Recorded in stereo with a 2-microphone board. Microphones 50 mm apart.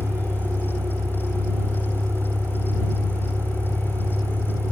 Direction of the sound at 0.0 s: 70° right (ahead or behind).